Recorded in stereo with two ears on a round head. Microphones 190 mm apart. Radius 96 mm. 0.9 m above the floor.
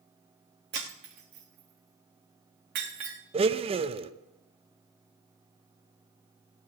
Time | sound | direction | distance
0.7 | breaking glass | 60° right (ahead or behind) | 3.5 m
3.3 | a blender | 25° right (ahead or behind) | 0.6 m